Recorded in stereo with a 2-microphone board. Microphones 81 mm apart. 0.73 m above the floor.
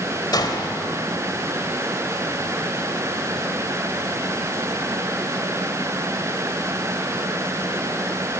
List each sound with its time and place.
0.3 s a gunshot: 55° left (ahead or behind), 2.5 m